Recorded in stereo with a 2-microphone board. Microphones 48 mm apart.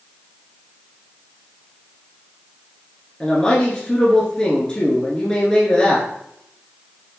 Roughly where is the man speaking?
Centre.